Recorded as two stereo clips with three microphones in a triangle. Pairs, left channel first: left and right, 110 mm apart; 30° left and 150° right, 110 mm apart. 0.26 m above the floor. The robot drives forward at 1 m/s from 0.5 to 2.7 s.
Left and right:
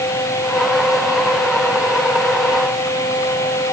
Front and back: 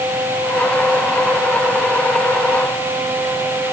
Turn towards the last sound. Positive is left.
No sound to turn to.